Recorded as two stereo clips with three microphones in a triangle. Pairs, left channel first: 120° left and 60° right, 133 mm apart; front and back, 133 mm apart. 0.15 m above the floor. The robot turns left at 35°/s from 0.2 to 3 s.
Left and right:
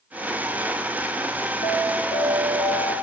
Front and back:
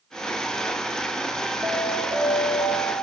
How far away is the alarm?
About 4 m.